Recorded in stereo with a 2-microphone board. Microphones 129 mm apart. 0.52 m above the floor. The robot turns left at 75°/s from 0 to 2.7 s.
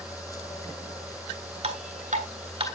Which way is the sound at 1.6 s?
55° right (ahead or behind).